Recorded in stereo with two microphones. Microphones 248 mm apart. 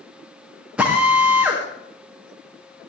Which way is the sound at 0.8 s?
5° right (ahead or behind).